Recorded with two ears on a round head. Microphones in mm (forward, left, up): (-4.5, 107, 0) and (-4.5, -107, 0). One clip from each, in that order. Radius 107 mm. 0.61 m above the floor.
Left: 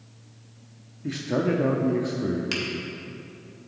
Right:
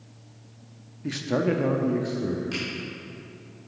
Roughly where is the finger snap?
Left.